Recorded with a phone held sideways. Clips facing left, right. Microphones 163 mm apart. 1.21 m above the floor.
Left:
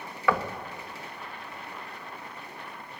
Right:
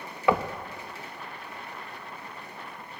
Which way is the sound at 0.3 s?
20° right (ahead or behind).